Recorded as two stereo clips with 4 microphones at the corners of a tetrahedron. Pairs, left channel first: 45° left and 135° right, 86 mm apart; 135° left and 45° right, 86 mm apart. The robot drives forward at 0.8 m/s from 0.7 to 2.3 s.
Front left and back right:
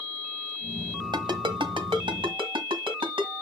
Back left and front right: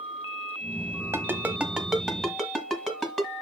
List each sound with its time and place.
1.1 s a ringtone: 105° right, 1.0 m; by 3.3 s 140° right, 1.6 m